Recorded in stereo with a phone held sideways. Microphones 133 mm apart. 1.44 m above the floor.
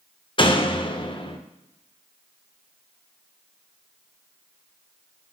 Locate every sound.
0.4 s a door slam: 40° left (ahead or behind), 0.9 m